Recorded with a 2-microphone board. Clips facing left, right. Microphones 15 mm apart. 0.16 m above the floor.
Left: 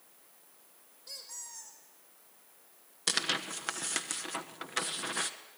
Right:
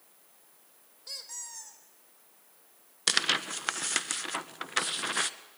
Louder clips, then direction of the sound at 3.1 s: Right 4 dB; 20° right (ahead or behind).